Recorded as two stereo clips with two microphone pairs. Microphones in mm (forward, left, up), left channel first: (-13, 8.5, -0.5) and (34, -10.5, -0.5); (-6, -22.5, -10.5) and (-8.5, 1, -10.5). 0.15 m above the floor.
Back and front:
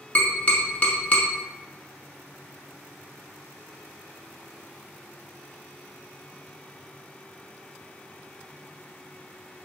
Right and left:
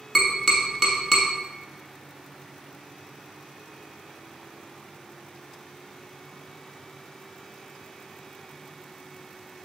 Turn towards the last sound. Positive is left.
turn(degrees=-170)